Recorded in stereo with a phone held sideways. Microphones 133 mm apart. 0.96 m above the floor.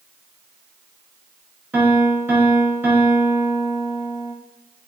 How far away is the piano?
About 0.5 m.